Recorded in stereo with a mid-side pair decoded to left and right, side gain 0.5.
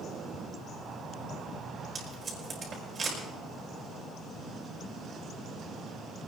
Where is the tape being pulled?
40° right, 6 m.